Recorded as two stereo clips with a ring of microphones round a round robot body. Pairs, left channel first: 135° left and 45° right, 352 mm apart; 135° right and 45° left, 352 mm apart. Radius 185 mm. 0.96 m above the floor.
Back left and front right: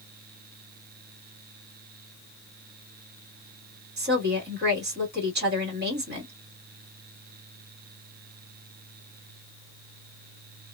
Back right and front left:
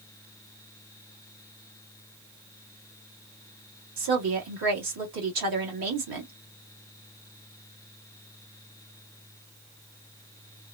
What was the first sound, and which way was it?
A woman speaking, 15° left.